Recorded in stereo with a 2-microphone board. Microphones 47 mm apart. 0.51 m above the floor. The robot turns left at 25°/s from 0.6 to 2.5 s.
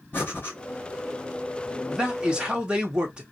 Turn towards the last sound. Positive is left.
turn(degrees=-25)  # may be behind; listen again after turning